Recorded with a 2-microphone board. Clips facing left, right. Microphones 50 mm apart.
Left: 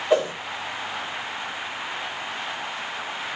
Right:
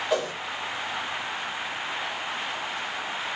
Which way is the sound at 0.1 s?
25° left (ahead or behind).